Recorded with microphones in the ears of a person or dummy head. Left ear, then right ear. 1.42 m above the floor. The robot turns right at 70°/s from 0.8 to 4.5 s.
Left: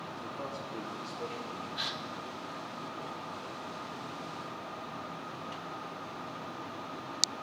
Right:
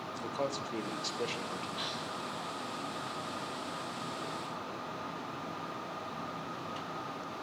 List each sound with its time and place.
0.1 s a man speaking: 90° right, 1.0 m; by 1.7 s 30° right, 1.0 m
1.8 s a gasp: 10° left (ahead or behind), 0.7 m; by 2.0 s 25° left (ahead or behind), 0.7 m